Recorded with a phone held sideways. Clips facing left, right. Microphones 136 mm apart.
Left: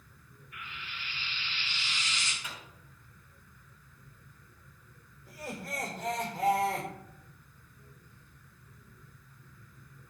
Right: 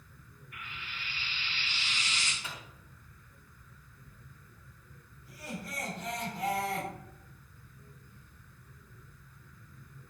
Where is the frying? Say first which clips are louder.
Even; 55° right (ahead or behind), 4 m.